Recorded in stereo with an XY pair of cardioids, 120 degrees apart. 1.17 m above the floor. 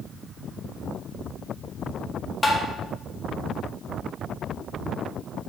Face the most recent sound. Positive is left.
turn(degrees=20)